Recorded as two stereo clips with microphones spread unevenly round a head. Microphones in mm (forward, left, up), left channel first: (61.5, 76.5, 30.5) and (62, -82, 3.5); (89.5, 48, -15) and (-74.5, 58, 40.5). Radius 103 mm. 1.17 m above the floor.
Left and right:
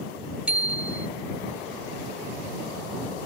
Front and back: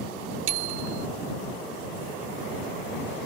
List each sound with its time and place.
0.5 s a bicycle bell: 175° right